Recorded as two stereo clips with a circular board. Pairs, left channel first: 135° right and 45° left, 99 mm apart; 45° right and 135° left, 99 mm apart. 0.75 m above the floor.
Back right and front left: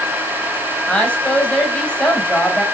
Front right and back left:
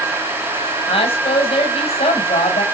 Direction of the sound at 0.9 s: 55° right.